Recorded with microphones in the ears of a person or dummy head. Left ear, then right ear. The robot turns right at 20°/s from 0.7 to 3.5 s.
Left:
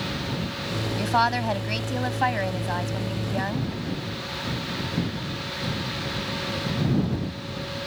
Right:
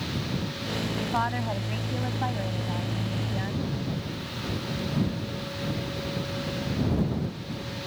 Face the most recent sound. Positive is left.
turn(degrees=140)